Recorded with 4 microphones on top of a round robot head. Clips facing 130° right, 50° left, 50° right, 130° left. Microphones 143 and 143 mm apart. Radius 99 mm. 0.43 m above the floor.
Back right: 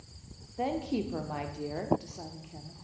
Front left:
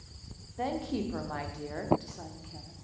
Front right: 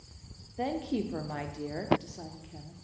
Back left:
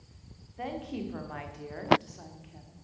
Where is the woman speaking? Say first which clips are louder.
Back right 1 dB, front right 4 dB; 70° right, 1.3 m.